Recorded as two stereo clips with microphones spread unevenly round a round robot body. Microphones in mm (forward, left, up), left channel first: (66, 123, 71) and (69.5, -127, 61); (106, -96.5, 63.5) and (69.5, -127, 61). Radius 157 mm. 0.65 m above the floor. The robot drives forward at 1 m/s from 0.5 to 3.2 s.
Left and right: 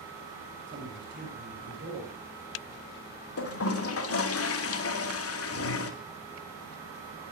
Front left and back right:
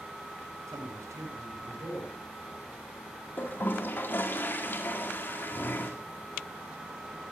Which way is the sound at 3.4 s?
85° left.